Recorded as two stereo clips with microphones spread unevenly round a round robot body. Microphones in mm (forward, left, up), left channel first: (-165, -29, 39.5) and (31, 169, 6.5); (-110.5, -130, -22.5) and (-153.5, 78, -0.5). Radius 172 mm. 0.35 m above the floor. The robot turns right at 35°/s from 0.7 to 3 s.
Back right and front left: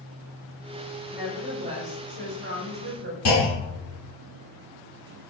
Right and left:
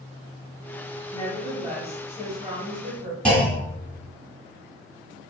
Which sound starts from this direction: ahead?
A woman speaking, at 1.1 s.